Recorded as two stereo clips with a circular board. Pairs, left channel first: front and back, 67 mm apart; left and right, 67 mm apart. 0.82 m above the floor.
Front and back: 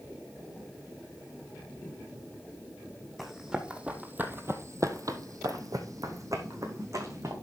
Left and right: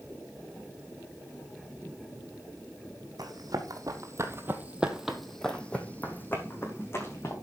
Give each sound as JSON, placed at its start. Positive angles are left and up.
{"t": 3.2, "sound": "running footsteps", "azimuth_deg": -95, "distance_m": 2.0}